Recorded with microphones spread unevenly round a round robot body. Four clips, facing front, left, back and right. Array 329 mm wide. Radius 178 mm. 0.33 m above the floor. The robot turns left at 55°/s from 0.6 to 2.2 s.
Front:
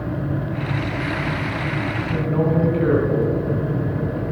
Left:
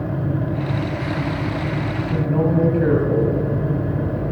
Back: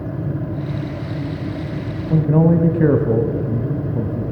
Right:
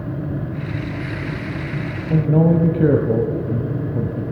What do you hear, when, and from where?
2.1 s a man speaking: 135° right, 1.9 m; by 4.2 s 140° right, 1.9 m